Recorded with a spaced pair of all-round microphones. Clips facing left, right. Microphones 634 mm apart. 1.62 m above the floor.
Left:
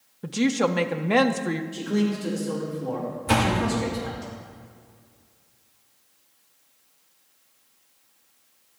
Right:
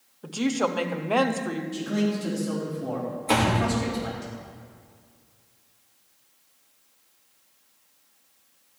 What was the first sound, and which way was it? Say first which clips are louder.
A woman speaking: left 3 dB; 55° left (ahead or behind).